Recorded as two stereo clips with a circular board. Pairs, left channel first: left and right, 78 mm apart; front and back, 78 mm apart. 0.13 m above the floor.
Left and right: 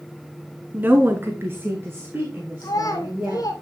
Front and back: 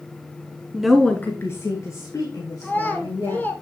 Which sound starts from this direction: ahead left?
A child speaking, at 2.6 s.